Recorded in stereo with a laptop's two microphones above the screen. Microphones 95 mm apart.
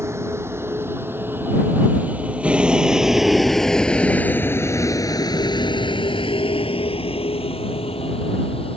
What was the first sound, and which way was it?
A vehicle, 30° right (ahead or behind).